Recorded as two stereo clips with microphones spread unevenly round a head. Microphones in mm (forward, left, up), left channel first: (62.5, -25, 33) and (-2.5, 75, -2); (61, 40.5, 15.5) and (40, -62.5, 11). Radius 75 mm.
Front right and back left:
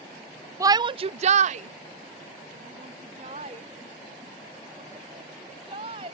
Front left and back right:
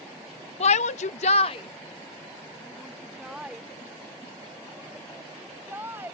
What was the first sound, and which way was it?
A shout, 65° left.